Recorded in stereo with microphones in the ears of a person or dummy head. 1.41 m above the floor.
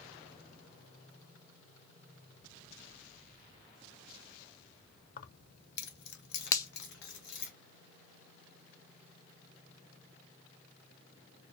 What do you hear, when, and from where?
5.2 s keys jangling: 45° left (ahead or behind), 0.6 m; by 7.5 s 75° left (ahead or behind), 1.8 m
6.5 s a finger snap: 20° left (ahead or behind), 0.6 m